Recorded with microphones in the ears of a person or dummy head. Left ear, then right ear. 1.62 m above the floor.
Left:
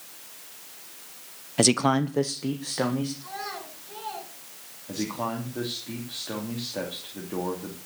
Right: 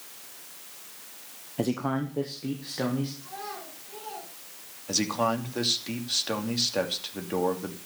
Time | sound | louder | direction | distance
1.6 | a man speaking | left 8 dB | 60° left (ahead or behind) | 0.9 m
3.2 | a child speaking | left 3 dB | 45° left (ahead or behind) | 8.5 m
4.9 | a man speaking | right 5 dB | 80° right | 3 m